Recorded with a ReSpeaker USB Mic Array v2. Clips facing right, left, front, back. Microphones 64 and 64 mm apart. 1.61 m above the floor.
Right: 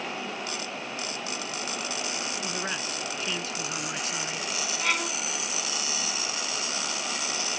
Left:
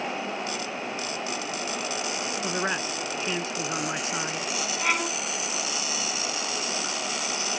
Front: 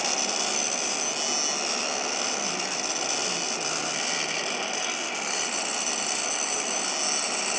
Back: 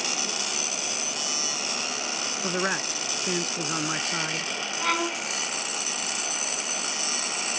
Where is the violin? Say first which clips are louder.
Left 2 dB, back 5 dB; 165° left.